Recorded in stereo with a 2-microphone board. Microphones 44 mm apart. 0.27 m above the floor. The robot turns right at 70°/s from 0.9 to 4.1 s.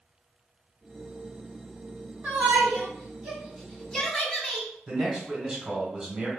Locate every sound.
2.2 s a shout: 50° right (ahead or behind), 1.6 m; by 4.7 s 20° left (ahead or behind), 1.6 m
4.9 s a man speaking: 20° right (ahead or behind), 1.3 m